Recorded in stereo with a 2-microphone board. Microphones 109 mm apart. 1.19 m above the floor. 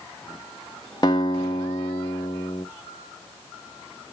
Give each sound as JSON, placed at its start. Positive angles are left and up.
{"t": 1.0, "sound": "a guitar", "side_deg": 40, "distance_m": 1.3}